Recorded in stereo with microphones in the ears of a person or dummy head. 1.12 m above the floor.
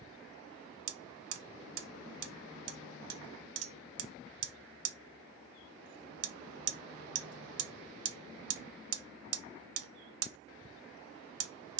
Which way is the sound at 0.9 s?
75° right (ahead or behind).